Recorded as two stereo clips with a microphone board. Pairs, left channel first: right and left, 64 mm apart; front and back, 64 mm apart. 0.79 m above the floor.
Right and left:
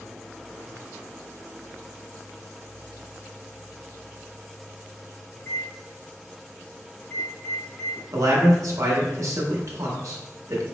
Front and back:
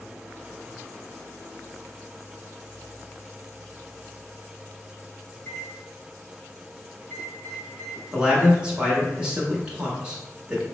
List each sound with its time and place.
5.3 s a microwave: 50° right, 1.8 m
8.1 s a man speaking: 105° left, 1.2 m